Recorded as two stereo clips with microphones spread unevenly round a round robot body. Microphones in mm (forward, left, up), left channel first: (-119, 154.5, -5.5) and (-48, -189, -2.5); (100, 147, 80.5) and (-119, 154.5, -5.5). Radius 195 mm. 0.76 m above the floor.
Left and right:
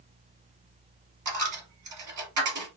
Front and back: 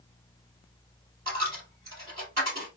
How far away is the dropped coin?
About 2.0 m.